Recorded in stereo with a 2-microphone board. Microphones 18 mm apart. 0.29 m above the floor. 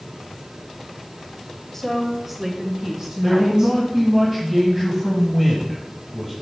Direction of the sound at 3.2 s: 10° right (ahead or behind).